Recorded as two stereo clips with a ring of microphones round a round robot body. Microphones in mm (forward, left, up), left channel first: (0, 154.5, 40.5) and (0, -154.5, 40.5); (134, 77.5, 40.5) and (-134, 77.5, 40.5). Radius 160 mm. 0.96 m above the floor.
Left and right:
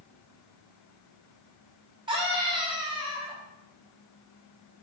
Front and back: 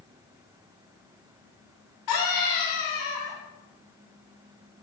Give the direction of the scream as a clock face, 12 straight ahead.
12 o'clock.